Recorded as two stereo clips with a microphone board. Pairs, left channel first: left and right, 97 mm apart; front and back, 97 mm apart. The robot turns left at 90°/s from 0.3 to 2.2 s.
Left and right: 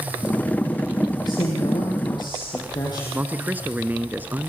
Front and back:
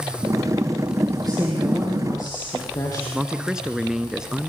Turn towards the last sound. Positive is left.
turn(degrees=-110)